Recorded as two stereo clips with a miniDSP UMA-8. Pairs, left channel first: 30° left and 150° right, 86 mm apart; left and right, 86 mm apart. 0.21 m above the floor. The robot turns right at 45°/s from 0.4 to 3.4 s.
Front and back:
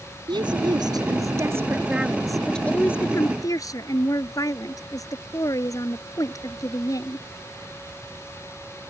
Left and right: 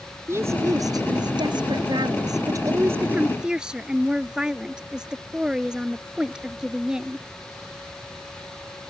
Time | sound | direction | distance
0.3 | a woman speaking | 145° right | ?